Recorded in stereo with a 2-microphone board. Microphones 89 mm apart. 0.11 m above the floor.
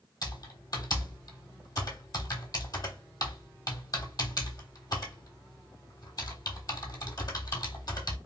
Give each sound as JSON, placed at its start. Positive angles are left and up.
{"t": 0.2, "sound": "typing on a keyboard", "side_deg": 45, "distance_m": 0.9}